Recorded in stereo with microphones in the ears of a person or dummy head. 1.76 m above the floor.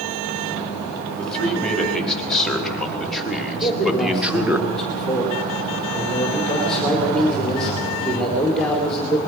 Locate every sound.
1.2 s a man speaking: centre (ahead or behind), 5 m; by 4.6 s 10° right (ahead or behind), 2.5 m
3.6 s a man speaking: centre (ahead or behind), 4.5 m